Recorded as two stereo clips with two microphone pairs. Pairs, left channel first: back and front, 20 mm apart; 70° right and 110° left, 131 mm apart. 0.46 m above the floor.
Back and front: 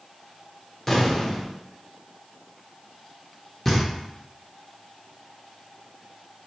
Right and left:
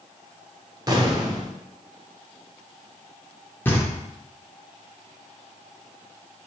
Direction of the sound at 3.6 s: 125° right.